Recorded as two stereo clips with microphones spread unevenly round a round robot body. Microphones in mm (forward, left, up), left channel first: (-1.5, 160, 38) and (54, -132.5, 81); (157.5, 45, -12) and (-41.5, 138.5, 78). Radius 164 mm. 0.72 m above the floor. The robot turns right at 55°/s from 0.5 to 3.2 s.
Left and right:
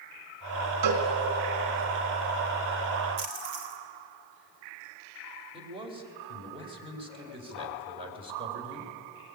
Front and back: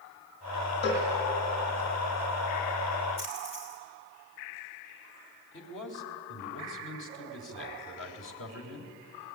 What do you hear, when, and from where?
0.8 s a cowbell: 105° right, 2.5 m; by 1.1 s 90° right, 2.5 m
3.2 s a splash: 85° right, 3 m
5.5 s a man speaking: 5° right, 3.5 m